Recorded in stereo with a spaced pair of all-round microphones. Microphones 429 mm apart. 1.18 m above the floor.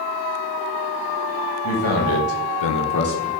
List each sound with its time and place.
1.6 s a man speaking: 50° left (ahead or behind), 1.2 m; by 3.3 s 15° left (ahead or behind), 0.7 m